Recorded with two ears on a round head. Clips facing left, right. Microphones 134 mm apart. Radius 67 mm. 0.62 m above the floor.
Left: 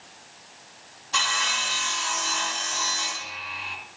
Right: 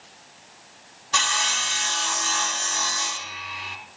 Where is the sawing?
65° right (ahead or behind), 3 m.